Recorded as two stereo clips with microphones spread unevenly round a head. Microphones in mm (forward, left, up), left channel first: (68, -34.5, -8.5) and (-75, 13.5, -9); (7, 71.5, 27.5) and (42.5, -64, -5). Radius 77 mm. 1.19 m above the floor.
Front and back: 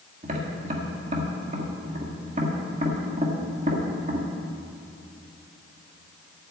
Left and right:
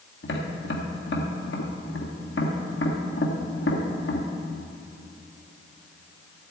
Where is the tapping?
115° left, 1.8 m.